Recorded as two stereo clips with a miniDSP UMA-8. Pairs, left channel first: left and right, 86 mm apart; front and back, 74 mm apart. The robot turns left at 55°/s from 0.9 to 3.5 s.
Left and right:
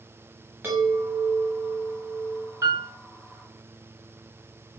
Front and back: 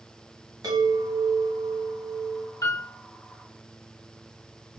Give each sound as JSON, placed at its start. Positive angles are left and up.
{"t": 0.6, "sound": "a chime", "azimuth_deg": -155, "distance_m": 1.2}
{"t": 2.6, "sound": "a piano", "azimuth_deg": -35, "distance_m": 0.8}